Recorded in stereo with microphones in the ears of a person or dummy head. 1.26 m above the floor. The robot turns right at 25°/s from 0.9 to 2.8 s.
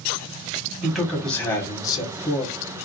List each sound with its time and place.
0.8 s a man speaking: 5° left, 1.3 m; by 2.5 s 45° left, 1.3 m